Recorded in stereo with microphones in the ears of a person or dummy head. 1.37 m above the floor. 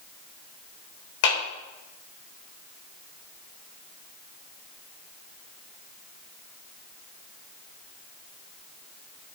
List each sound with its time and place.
1.2 s a clap: 80° left, 3.5 m